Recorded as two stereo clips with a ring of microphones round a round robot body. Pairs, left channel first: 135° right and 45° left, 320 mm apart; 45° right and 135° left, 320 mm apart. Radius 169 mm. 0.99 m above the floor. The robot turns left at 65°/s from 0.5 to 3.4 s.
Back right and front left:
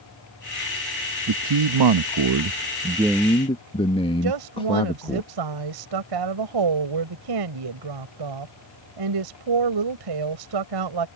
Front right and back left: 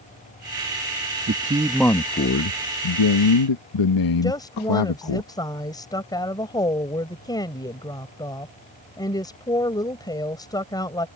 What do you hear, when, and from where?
1.3 s a man speaking: 80° left; by 5.2 s 60° right
4.2 s a woman speaking: 35° left